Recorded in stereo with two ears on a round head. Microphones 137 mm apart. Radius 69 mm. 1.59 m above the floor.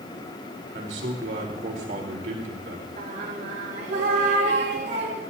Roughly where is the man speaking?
Right.